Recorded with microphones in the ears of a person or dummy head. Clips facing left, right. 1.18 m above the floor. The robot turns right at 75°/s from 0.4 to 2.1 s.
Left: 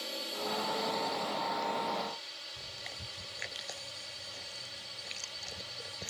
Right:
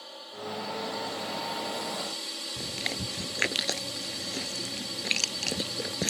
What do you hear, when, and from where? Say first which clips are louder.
0.0 s a drone: left 1 dB; 150° left; by 6.1 s 85° right
2.6 s chewing: right 15 dB; 85° right